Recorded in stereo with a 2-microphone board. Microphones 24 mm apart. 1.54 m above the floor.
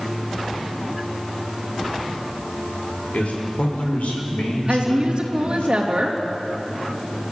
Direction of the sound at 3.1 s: 85° left.